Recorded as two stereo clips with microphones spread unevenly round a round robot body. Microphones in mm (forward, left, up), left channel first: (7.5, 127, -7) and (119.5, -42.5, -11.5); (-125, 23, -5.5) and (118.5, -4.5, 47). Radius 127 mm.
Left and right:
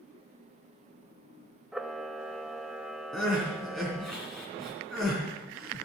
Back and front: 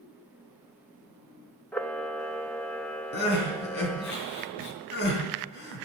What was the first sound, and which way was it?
A camera shutter, 140° right.